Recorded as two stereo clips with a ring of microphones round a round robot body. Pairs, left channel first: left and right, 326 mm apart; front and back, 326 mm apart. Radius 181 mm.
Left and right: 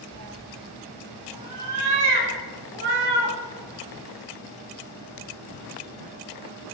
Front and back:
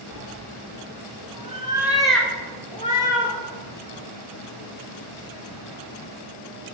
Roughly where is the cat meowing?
Behind right.